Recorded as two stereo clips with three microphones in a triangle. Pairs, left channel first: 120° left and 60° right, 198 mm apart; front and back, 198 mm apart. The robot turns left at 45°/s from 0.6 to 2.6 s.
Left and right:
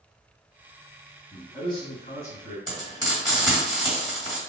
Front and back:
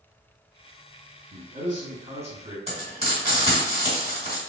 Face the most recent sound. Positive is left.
turn(degrees=145)